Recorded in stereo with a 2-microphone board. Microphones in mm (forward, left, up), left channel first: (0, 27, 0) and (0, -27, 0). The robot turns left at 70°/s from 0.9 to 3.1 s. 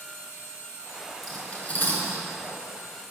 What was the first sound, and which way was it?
Cutlery clinking, centre (ahead or behind).